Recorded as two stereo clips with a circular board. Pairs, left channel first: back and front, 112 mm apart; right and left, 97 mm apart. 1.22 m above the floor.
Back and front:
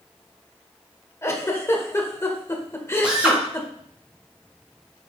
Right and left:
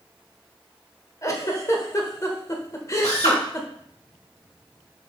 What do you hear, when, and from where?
1.2 s a giggle: 125° right, 1.1 m
3.0 s a drill: 80° right, 3 m